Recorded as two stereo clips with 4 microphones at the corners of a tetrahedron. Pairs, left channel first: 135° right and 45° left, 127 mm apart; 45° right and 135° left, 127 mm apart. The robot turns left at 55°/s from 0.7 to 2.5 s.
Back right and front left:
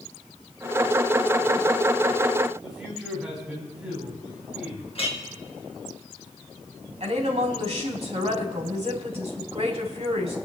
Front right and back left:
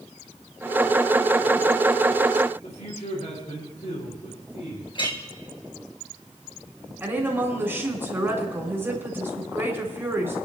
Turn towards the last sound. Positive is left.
turn(degrees=65)